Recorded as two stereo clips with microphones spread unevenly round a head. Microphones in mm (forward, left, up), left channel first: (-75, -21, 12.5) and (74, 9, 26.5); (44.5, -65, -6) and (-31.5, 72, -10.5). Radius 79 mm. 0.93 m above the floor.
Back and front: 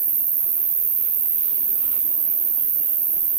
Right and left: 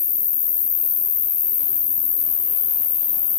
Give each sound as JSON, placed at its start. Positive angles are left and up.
{"t": 0.0, "sound": "an insect", "azimuth_deg": -10, "distance_m": 1.0}